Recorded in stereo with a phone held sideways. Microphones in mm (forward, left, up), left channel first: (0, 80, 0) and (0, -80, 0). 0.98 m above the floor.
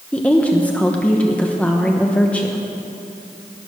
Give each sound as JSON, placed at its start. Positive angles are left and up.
{"t": 0.1, "sound": "a woman speaking", "side_deg": 10, "distance_m": 0.8}